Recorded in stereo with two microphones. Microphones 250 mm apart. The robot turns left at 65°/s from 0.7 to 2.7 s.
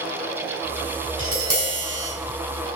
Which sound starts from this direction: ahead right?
Tapping, at 1.2 s.